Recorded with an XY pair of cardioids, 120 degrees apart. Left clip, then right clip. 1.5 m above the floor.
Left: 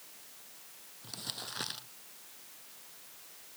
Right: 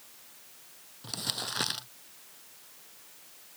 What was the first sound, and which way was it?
Crumpling, 40° right.